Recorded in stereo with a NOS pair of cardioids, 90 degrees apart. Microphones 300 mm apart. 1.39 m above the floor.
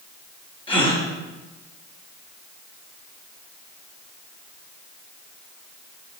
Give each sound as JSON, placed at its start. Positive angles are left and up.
{"t": 0.7, "sound": "a gasp", "azimuth_deg": 15, "distance_m": 1.7}